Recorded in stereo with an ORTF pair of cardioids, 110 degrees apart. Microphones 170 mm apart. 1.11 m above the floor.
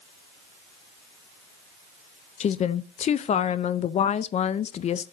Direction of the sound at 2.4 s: 40° left.